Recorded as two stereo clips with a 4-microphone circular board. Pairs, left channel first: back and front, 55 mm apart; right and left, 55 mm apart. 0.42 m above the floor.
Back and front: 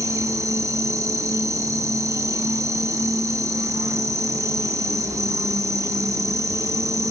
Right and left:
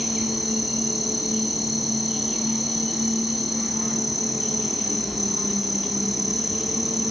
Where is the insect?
Straight ahead, 2.5 m.